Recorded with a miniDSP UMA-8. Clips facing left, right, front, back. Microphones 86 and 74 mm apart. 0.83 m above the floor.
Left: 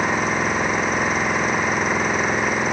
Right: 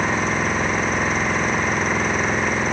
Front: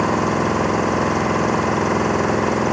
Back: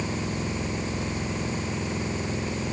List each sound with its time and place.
0.0 s an engine running: 5° left